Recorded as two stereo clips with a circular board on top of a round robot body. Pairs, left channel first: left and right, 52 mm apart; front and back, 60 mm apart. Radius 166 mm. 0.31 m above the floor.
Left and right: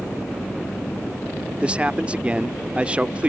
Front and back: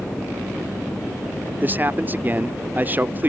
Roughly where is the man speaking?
Behind right.